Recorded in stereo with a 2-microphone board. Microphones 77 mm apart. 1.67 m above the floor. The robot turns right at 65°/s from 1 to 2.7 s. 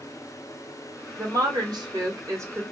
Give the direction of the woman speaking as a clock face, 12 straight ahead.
4 o'clock.